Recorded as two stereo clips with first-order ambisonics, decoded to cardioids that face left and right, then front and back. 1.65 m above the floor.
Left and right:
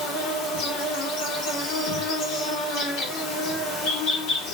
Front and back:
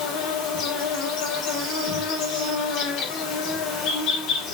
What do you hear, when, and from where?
0.0 s an insect: 50° left, 4.5 m